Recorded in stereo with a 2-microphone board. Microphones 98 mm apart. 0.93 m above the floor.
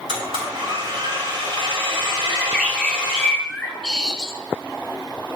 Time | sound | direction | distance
0.1 | a blender | 75° right (ahead or behind) | 3 m
2.3 | a bird | 5° left (ahead or behind) | 0.8 m